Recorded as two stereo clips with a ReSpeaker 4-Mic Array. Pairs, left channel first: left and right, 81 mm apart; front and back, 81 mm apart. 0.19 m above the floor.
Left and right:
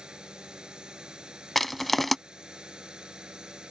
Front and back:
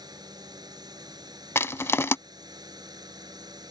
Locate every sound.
0.0 s a drone: 165° right
1.6 s crushing: 5° left